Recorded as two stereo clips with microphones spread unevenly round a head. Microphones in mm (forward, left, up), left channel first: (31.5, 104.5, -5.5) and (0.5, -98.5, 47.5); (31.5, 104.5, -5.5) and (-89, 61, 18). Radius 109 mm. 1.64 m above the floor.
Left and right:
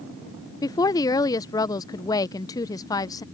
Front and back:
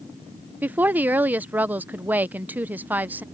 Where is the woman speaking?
165° left.